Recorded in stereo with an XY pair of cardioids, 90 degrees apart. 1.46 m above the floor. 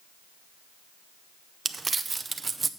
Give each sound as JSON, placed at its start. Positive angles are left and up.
{"t": 1.6, "sound": "crumpling", "azimuth_deg": -35, "distance_m": 0.7}